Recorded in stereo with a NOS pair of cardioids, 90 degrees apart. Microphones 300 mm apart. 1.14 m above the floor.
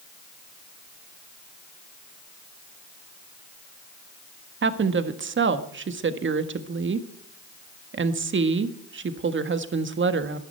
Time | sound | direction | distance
4.6 | a woman speaking | 35° right | 1.6 m